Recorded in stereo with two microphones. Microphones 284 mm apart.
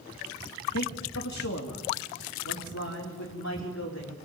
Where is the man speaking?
70° left (ahead or behind), 2.5 m; by 4.2 s 65° left (ahead or behind), 4.5 m.